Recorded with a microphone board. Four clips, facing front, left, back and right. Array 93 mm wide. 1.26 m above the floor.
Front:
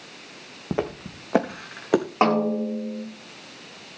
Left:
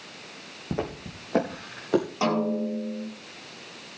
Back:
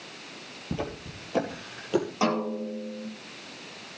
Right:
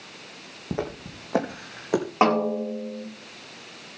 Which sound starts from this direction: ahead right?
A snare drum, at 2.2 s.